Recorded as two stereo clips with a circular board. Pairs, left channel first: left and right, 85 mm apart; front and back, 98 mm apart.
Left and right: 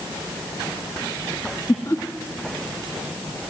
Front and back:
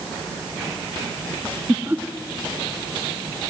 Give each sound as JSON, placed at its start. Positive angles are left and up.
{"t": 1.7, "sound": "laughter", "azimuth_deg": 120, "distance_m": 1.1}